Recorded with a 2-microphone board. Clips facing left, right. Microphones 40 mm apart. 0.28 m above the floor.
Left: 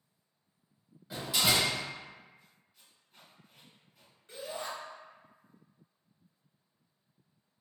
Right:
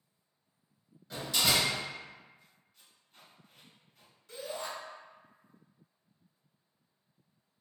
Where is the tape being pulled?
5° left (ahead or behind), 1.3 m.